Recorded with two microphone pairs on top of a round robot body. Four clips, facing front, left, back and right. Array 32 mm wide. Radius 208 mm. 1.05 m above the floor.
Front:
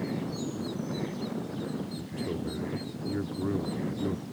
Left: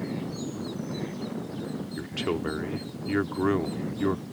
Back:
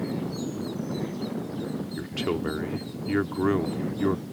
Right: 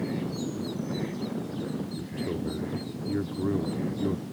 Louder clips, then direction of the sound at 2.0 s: Left 3 dB, back 6 dB; 130° left.